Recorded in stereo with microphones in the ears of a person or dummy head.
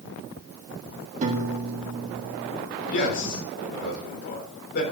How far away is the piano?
About 1.8 m.